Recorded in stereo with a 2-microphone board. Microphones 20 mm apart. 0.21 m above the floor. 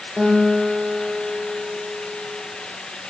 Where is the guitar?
75° right (ahead or behind), 8.5 m.